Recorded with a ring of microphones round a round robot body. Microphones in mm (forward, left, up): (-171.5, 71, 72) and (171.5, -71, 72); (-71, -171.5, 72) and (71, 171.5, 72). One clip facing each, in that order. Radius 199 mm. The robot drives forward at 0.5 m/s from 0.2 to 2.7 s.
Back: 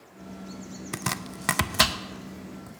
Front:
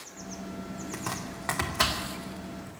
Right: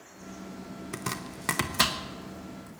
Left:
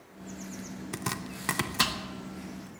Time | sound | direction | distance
0.9 | chopping | 140° left | 0.8 m